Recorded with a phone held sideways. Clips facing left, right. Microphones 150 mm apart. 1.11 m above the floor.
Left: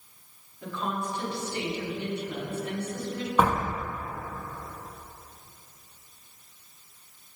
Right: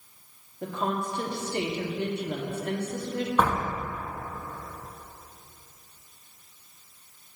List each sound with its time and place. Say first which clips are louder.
0.6 s a woman speaking: right 3 dB; 65° right (ahead or behind), 2 m
3.4 s a door slam: left 2 dB; 10° left (ahead or behind), 1.3 m